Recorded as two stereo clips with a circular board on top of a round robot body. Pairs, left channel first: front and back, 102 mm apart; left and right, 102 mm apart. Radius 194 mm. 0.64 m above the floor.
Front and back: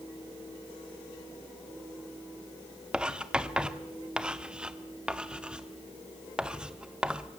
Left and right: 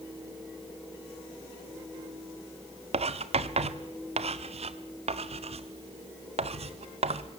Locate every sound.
2.9 s writing: 100° right, 0.8 m